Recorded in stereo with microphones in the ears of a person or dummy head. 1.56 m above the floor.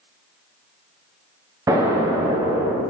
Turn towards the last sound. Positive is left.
turn(degrees=-15)  # may be behind; listen again after turning